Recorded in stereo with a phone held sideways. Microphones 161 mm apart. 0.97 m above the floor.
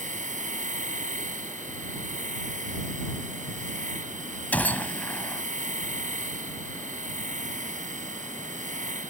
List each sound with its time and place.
0.0 s a machine running: 50° right (ahead or behind)
4.5 s a gunshot: 10° left (ahead or behind)